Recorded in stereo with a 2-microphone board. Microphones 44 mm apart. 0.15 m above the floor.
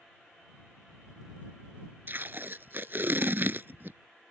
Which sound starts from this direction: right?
Tape being pulled, at 2.1 s.